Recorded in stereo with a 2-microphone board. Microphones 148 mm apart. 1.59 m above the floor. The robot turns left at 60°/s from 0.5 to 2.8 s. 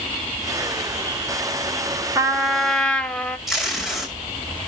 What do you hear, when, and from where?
2.1 s a trumpet: 150° right, 1.0 m; by 3.4 s 170° left, 1.0 m
3.5 s tape being pulled: centre (ahead or behind), 5.5 m